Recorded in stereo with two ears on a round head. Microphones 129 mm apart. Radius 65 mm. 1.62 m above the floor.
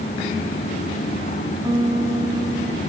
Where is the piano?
25° right (ahead or behind), 1.0 m.